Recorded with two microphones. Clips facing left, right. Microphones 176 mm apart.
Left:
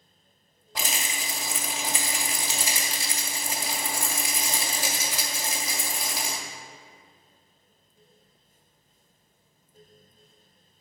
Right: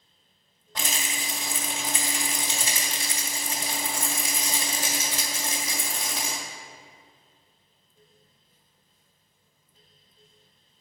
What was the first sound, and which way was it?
A rattle, 10° left (ahead or behind).